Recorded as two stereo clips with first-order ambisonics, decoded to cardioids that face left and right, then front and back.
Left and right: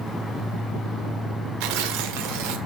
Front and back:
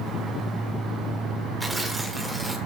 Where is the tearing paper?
95° right, 1.6 m.